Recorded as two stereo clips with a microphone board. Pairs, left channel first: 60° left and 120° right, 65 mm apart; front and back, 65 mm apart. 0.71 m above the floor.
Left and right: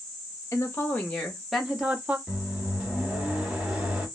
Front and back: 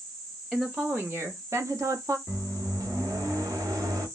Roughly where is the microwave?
Behind.